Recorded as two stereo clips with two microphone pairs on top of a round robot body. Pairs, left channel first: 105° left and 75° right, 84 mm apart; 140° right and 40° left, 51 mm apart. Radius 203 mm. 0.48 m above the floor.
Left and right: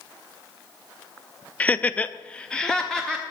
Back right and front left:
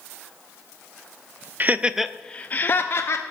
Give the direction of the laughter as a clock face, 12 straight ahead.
11 o'clock.